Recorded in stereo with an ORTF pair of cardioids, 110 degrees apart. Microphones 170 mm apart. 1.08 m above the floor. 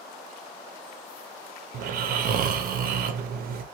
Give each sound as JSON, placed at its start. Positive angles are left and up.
{"t": 1.7, "sound": "snoring", "azimuth_deg": -60, "distance_m": 0.6}